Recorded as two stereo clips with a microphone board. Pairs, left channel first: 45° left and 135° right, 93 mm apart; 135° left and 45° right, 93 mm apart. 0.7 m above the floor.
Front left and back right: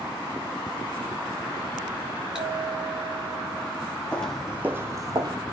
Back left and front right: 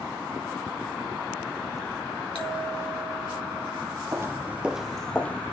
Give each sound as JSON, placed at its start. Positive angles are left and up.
{"t": 2.4, "sound": "a bell", "azimuth_deg": 145, "distance_m": 5.5}
{"t": 4.1, "sound": "footsteps", "azimuth_deg": -25, "distance_m": 0.8}